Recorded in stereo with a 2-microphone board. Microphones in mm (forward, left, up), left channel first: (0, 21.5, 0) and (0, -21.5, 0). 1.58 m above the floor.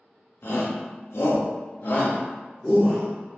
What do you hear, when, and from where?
0.4 s a shout: 60° left (ahead or behind), 0.8 m; by 3.1 s 15° left (ahead or behind), 1.0 m